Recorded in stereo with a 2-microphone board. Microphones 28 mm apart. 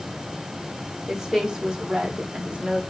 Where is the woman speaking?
15° right (ahead or behind), 2.5 m; by 2.8 s 40° right (ahead or behind), 1.8 m.